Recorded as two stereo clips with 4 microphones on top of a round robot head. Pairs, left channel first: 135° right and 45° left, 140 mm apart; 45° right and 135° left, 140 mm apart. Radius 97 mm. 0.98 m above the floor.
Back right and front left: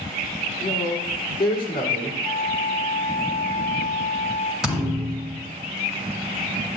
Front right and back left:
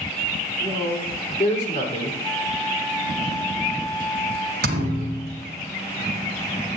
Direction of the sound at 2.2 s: 105° right.